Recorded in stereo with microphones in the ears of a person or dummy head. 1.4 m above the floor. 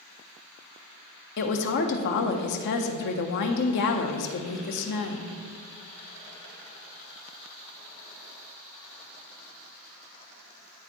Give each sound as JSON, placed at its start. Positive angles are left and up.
{"t": 1.4, "sound": "a woman speaking", "side_deg": 60, "distance_m": 0.9}